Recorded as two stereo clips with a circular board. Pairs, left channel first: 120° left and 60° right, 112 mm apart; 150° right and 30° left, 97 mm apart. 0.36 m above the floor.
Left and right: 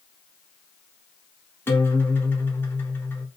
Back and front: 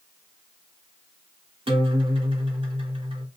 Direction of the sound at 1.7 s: 50° left.